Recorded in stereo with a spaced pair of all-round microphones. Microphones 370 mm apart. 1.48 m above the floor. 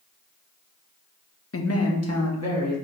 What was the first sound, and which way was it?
A man speaking, 40° left (ahead or behind).